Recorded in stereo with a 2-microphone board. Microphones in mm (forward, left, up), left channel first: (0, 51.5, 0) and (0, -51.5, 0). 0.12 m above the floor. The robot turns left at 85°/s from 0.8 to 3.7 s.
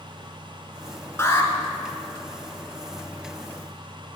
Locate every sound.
1.2 s an alarm: 25° left (ahead or behind), 1.1 m